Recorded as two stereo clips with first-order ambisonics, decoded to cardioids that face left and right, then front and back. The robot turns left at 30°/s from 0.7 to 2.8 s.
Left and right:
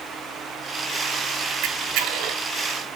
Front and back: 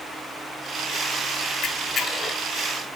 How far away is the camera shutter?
About 1.5 m.